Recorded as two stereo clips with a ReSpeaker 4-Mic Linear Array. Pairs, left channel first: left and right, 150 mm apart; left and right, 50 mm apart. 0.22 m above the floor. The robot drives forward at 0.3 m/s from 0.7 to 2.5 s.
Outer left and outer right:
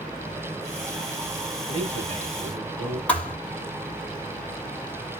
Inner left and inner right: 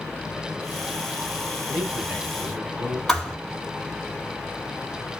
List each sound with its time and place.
1.7 s a man speaking: 35° right (ahead or behind), 1.6 m; by 3.0 s 30° right (ahead or behind), 1.7 m
3.1 s a thud: 10° left (ahead or behind), 1.0 m